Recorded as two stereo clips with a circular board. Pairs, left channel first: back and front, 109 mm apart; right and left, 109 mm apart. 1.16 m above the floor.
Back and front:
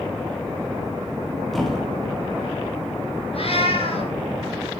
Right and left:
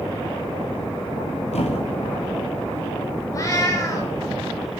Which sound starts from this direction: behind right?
A cat meowing, at 3.3 s.